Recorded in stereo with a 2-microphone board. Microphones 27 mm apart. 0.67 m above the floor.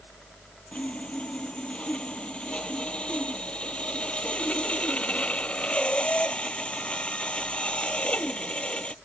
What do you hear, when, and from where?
0.7 s sawing: 55° left (ahead or behind)